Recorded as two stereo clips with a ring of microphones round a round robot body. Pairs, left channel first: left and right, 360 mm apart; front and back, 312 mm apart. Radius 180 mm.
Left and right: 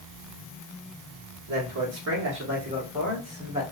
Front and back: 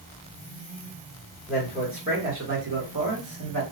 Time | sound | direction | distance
1.5 | a man speaking | 100° right | 1.1 m